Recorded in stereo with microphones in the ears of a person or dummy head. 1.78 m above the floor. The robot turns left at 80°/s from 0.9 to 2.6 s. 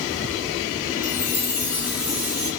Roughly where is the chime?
Left.